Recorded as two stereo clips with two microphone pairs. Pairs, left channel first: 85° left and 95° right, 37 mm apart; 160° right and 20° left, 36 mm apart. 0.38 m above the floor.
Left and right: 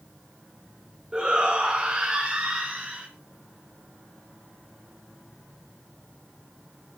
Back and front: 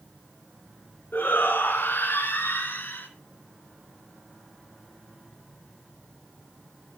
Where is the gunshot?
I don't hear a gunshot.